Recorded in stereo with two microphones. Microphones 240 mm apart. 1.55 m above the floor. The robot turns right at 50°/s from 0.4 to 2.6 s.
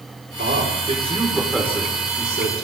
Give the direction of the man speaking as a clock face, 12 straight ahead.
2 o'clock.